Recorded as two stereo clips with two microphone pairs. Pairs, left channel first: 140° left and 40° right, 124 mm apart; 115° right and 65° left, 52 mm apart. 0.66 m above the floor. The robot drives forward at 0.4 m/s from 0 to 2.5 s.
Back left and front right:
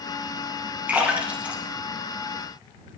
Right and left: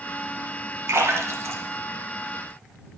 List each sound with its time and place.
0.9 s a splash: 35° left, 3 m; by 2.7 s 45° left, 2.5 m